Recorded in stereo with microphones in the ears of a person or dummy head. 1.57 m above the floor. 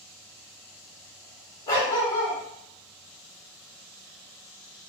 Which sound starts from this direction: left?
A dog barking, at 1.7 s.